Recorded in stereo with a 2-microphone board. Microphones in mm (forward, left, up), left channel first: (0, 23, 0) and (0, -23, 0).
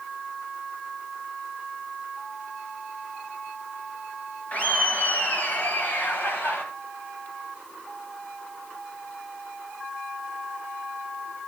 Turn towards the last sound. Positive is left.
turn(degrees=50)  # may be behind; listen again after turning